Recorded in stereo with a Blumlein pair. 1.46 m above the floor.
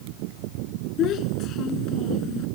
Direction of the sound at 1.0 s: 35° left.